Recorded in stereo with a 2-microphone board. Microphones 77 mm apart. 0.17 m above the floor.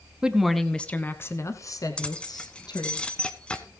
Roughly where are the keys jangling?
Centre.